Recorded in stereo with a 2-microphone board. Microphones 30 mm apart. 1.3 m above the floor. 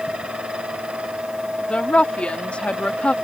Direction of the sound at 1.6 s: 40° left (ahead or behind).